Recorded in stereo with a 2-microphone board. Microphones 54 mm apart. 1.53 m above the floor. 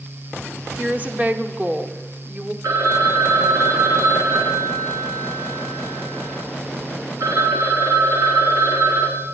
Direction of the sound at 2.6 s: 65° right (ahead or behind).